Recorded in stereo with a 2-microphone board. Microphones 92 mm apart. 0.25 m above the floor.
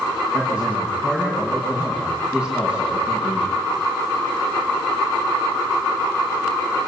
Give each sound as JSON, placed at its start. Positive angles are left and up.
{"t": 0.3, "sound": "a man speaking", "side_deg": -15, "distance_m": 8.5}